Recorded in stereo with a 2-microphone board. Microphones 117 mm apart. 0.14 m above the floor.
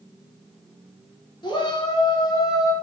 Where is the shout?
40° left (ahead or behind), 1.9 m; by 2.7 s 30° left (ahead or behind), 1.3 m.